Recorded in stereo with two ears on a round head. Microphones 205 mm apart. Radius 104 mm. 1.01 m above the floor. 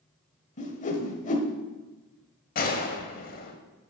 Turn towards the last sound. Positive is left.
turn(degrees=40)  # may be behind; listen again after turning